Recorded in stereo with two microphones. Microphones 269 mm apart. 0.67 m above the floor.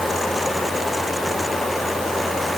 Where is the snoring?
I don't hear snoring.